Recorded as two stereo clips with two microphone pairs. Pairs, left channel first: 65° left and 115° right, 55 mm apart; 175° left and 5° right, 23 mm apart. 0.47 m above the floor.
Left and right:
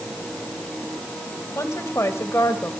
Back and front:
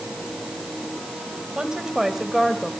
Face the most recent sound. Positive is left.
turn(degrees=90)